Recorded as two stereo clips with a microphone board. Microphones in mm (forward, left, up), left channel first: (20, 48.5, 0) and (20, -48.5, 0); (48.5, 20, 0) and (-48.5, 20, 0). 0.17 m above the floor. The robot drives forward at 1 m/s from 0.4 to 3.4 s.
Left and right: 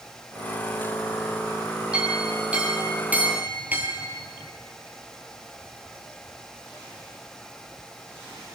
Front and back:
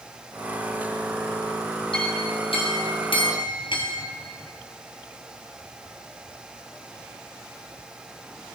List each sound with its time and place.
1.9 s a clink: 10° right, 3.5 m; by 4.0 s 20° right, 1.9 m